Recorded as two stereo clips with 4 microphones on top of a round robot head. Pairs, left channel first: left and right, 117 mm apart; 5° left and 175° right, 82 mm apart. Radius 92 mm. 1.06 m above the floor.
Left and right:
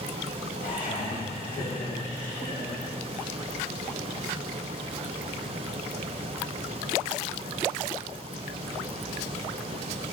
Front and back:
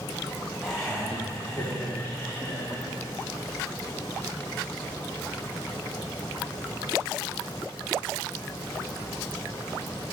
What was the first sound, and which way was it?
Laughter, 95° left.